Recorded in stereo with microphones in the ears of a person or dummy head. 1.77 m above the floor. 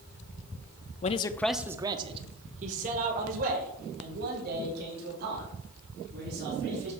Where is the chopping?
I don't hear chopping.